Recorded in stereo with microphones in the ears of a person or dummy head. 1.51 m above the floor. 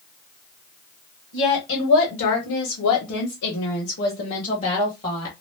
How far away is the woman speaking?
About 1.4 m.